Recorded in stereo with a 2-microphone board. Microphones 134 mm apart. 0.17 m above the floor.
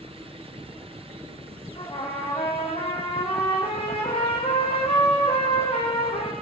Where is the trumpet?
45° left (ahead or behind), 7.5 m.